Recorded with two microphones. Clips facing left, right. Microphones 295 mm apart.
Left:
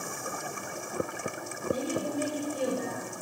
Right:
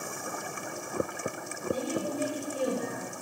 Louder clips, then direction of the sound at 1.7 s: Left 1 dB; 10° right (ahead or behind).